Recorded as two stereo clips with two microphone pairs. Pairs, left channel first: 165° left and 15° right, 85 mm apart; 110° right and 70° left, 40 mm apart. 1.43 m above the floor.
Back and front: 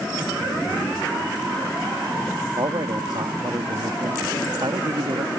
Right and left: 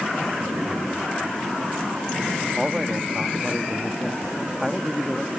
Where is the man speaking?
15° right.